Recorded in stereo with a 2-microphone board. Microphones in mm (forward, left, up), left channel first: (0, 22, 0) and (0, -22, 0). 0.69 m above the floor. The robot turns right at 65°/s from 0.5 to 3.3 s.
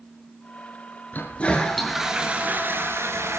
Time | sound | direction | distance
1.1 | a toilet flushing | 135° left | 4 m